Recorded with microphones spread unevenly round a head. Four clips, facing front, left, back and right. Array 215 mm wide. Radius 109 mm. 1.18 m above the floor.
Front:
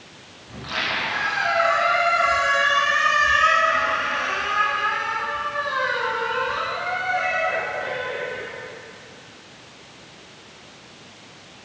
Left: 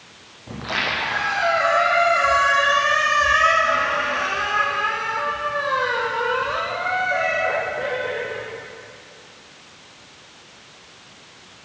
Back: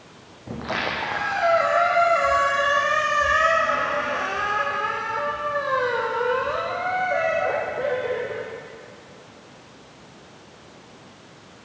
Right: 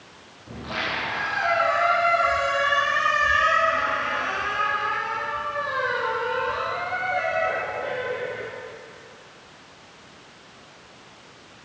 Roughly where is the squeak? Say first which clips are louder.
Left 4 dB, back 2 dB; behind.